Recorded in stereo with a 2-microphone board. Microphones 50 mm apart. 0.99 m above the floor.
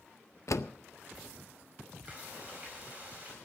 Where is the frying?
35° right (ahead or behind), 5 m.